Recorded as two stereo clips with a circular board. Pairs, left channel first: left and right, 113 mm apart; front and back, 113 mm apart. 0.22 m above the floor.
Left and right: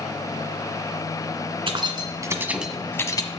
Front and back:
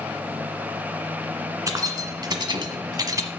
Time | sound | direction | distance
1.7 | keys jangling | 125° right | 1.7 m